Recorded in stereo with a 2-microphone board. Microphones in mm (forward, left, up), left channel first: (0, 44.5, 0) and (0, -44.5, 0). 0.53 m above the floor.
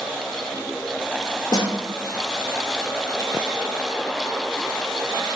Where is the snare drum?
50° left (ahead or behind), 0.7 m.